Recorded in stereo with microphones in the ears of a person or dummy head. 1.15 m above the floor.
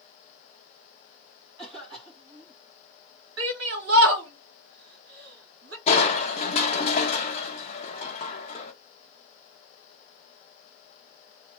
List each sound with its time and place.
1.6 s a cough: 25° right (ahead or behind), 1.6 m
3.4 s a shout: 75° right (ahead or behind), 1.5 m
5.9 s crushing: 25° left (ahead or behind), 0.8 m